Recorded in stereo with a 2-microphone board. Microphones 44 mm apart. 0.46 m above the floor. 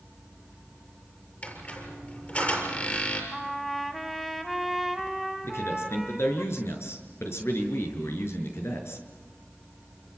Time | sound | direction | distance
1.4 | a squeak | 35° left (ahead or behind) | 7 m
3.3 | a trumpet | 5° left (ahead or behind) | 3.5 m
5.4 | a man speaking | 80° left | 6.5 m